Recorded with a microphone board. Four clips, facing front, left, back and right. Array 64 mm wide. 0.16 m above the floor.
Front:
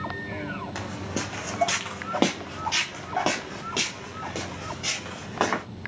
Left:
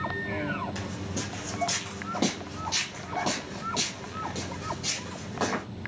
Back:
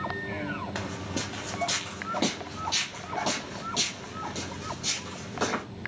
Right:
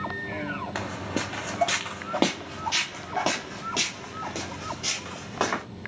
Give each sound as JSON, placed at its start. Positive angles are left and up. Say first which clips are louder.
{"t": 0.8, "sound": "footsteps", "louder": "right 4 dB, front 2 dB", "azimuth_deg": -95, "distance_m": 0.5}